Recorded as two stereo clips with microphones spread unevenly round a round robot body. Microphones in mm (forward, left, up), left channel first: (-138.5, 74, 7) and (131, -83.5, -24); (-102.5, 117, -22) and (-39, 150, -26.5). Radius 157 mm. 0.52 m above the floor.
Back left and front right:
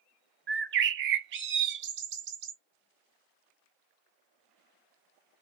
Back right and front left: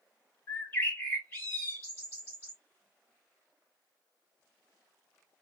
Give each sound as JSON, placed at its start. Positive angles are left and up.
{"t": 0.5, "sound": "a bird", "azimuth_deg": -85, "distance_m": 0.5}